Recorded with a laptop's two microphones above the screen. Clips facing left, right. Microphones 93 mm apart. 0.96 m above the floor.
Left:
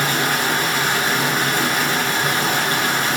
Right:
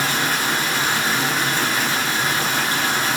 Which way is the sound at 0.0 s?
50° left (ahead or behind).